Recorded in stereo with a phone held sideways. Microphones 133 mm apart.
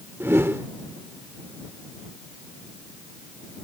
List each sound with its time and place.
0.2 s a whoosh: 20° right (ahead or behind)